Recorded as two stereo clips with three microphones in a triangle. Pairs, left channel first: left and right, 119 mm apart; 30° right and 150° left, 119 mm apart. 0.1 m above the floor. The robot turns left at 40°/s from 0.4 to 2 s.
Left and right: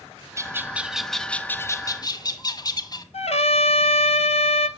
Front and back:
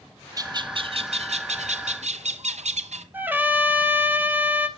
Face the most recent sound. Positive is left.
turn(degrees=75)